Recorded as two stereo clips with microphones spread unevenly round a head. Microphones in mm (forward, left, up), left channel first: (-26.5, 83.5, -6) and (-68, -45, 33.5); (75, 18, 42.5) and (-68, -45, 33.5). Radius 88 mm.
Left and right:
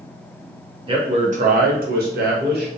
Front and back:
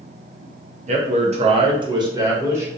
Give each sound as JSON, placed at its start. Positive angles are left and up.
{"t": 0.9, "sound": "a man speaking", "azimuth_deg": -165, "distance_m": 0.7}